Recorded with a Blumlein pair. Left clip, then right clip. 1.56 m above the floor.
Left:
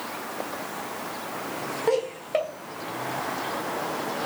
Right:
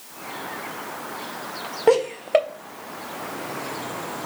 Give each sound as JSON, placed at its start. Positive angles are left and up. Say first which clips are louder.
{"t": 1.9, "sound": "laughter", "louder": "right 8 dB", "azimuth_deg": -20, "distance_m": 0.6}